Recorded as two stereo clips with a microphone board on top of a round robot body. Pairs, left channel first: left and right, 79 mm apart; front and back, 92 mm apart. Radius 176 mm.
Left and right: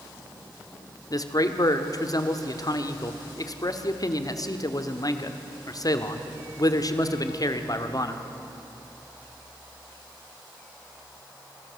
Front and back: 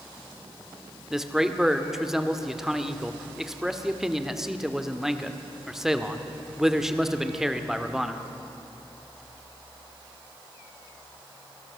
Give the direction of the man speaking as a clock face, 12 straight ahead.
9 o'clock.